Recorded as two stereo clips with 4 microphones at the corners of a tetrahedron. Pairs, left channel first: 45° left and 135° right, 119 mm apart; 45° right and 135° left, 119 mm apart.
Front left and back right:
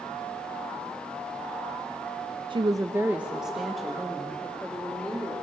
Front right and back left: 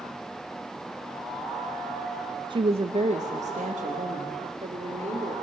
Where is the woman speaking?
175° right, 0.5 m; by 5.3 s 125° left, 2.5 m.